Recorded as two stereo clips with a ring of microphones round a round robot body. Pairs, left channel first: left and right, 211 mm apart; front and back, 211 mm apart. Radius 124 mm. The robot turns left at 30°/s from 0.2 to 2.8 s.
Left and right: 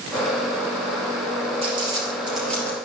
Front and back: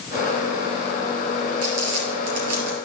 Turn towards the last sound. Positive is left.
turn(degrees=170)